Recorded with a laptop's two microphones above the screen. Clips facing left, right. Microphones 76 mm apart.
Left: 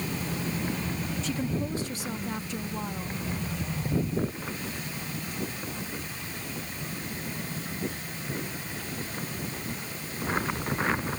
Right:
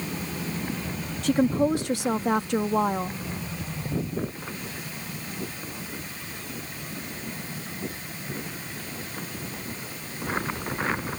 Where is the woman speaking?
60° right (ahead or behind); by 3.2 s 55° right (ahead or behind).